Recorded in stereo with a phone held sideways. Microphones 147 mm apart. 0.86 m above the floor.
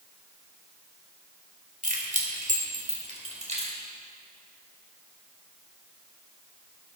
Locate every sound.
1.8 s keys jangling: 60° right (ahead or behind), 2.5 m; by 3.7 s 45° right (ahead or behind), 3 m